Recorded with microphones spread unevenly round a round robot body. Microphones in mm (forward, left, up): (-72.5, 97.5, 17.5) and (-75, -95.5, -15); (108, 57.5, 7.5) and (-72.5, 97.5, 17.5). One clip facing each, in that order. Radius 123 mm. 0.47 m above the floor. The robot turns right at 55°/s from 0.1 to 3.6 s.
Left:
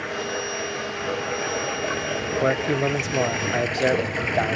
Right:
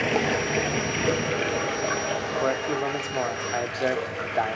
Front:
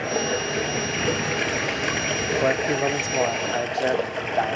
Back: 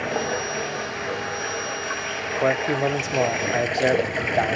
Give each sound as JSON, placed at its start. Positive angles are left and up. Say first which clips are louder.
{"t": 0.0, "sound": "running water", "louder": "right 5 dB, front 1 dB", "azimuth_deg": -95, "distance_m": 2.5}
{"t": 2.4, "sound": "a man speaking", "louder": "left 5 dB, back 2 dB", "azimuth_deg": 60, "distance_m": 0.7}